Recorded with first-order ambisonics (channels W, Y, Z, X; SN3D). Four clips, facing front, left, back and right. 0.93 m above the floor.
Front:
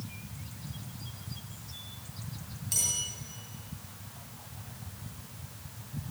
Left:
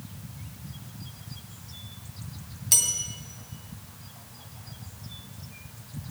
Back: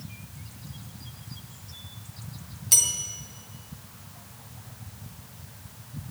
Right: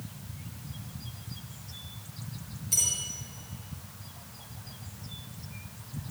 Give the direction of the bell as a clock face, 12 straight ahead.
8 o'clock.